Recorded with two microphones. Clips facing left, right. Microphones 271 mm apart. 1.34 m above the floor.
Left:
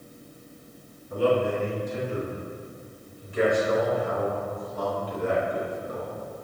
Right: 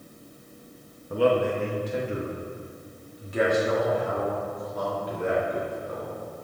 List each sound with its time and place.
1.1 s a man speaking: 65° right (ahead or behind), 1.7 m; by 6.2 s 60° right (ahead or behind), 4.5 m